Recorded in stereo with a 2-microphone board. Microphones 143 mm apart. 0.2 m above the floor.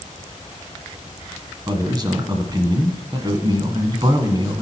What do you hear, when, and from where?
1.7 s a man speaking: 30° right (ahead or behind), 1.4 m